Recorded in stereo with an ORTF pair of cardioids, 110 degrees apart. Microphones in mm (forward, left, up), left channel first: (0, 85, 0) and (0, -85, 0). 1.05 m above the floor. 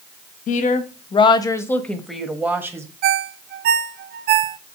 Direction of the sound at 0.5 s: 55° left.